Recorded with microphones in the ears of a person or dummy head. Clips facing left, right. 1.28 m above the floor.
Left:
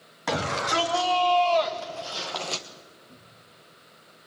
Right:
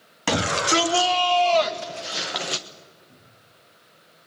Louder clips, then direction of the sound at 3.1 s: Left 2 dB; centre (ahead or behind).